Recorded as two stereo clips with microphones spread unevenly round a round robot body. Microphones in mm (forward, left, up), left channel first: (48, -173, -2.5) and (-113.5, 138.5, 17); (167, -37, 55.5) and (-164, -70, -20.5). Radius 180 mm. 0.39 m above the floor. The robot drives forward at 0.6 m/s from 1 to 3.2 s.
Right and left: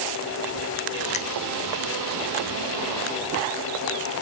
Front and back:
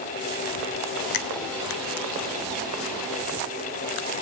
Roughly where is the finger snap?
Ahead.